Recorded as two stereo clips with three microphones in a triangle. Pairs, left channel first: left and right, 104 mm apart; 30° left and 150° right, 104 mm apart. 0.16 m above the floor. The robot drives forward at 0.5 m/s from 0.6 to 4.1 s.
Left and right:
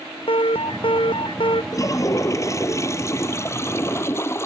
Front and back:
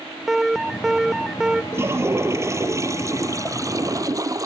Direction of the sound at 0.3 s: 125° left.